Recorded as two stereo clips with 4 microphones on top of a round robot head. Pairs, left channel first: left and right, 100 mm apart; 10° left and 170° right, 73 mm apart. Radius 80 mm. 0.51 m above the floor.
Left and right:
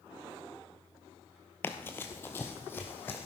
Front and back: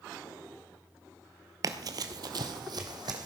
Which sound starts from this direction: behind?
Running footsteps, at 1.6 s.